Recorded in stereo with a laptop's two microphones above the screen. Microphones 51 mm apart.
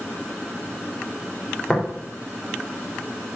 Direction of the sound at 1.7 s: 20° left (ahead or behind).